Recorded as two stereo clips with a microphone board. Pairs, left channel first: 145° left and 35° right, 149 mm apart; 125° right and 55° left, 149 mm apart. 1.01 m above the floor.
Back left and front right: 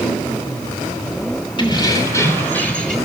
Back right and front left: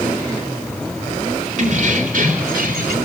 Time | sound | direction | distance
1.6 | keys jangling | 90° left | 2.5 m